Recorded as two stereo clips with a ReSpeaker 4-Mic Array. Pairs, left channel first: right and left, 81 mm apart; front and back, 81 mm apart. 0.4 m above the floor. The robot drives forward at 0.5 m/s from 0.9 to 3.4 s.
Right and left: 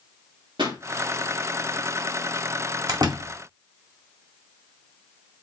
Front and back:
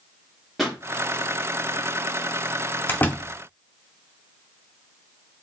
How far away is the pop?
About 4.5 m.